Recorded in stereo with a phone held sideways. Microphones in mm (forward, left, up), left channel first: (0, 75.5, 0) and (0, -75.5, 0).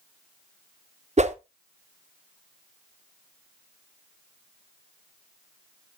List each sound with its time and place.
1.2 s a whoosh: 50° right (ahead or behind), 0.7 m